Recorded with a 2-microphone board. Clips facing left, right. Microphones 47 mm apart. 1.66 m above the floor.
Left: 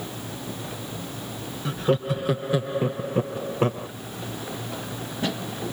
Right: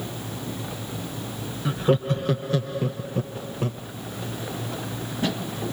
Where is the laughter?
10° right (ahead or behind); by 3.9 s 40° left (ahead or behind).